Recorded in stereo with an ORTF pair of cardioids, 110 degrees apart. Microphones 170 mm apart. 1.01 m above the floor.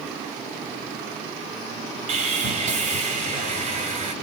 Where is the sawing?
50° right, 2 m.